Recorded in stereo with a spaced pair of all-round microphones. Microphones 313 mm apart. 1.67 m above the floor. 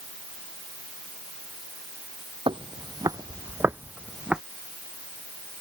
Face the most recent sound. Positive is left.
turn(degrees=0)  # may be behind; listen again after turning